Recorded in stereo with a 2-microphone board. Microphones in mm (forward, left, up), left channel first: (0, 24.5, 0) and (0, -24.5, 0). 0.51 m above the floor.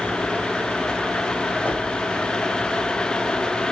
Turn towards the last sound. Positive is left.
turn(degrees=45)  # may be behind; listen again after turning